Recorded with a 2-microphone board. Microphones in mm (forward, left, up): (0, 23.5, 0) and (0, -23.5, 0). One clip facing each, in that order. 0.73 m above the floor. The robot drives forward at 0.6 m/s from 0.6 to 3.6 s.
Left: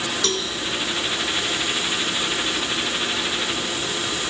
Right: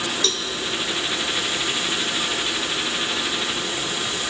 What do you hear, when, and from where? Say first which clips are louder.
0.2 s a cowbell: left 1 dB; 55° left (ahead or behind), 1.4 m